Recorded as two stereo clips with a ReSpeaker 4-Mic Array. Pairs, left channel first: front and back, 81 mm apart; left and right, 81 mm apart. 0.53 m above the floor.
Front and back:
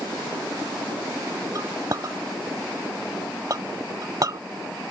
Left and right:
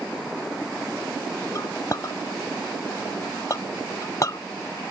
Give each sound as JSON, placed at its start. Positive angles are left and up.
{"t": 1.6, "sound": "a clink", "azimuth_deg": 140}